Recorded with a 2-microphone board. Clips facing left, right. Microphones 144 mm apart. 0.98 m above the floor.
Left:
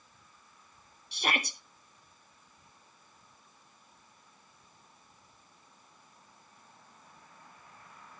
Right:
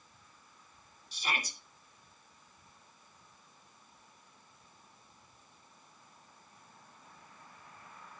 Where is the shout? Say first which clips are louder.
Left 5 dB; 65° left (ahead or behind), 1.3 m.